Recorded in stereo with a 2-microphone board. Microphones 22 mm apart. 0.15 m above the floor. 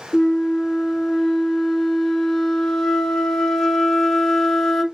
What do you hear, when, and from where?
0.1 s a flute: 25° left (ahead or behind), 0.7 m